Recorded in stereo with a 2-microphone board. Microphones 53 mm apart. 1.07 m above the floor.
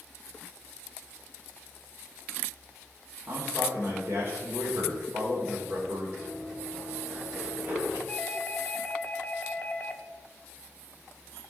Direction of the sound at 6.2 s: Centre (ahead or behind).